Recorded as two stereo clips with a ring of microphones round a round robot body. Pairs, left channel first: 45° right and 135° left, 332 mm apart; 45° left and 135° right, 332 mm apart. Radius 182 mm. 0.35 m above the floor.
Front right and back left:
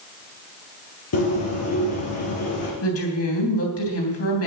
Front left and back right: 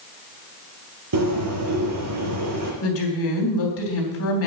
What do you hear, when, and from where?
1.1 s a bird: 90° right, 4.5 m
2.8 s a woman speaking: straight ahead, 3.5 m